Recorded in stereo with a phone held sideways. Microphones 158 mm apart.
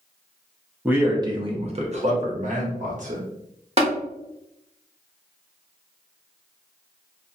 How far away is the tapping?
About 0.9 m.